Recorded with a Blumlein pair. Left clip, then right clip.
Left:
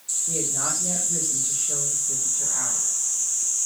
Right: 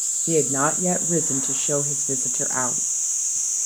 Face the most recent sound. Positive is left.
turn(degrees=-35)